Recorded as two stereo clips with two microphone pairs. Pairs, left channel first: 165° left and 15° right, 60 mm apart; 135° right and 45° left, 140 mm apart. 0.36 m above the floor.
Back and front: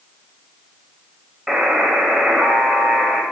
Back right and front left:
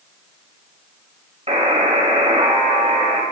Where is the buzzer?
65° left, 1.4 m.